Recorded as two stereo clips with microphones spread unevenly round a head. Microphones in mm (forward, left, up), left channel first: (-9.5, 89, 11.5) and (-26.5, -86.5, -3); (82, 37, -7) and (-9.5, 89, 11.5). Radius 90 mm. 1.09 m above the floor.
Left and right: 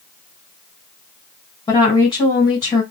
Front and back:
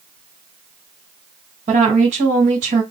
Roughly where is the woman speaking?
Behind left.